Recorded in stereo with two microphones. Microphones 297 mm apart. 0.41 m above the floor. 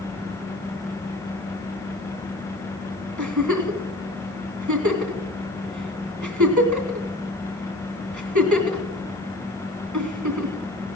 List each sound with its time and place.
3.2 s a giggle: 75° right (ahead or behind), 2.5 m